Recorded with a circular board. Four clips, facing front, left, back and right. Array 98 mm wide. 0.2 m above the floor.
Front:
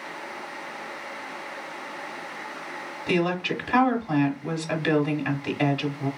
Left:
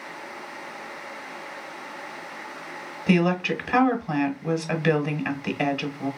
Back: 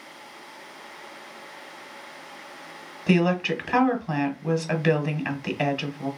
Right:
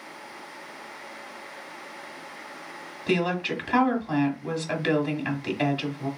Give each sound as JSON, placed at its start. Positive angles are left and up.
{"t": 3.1, "sound": "a woman speaking", "azimuth_deg": 140, "distance_m": 1.4}